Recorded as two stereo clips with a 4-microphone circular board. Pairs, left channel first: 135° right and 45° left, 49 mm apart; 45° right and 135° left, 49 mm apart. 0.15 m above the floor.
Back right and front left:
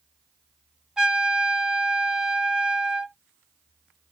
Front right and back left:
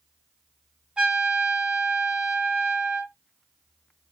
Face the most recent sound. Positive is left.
turn(degrees=100)